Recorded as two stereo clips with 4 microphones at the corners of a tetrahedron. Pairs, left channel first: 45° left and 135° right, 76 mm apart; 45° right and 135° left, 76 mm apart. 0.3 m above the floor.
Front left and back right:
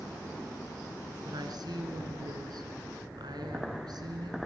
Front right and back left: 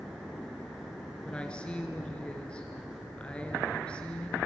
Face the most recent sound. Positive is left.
turn(degrees=-120)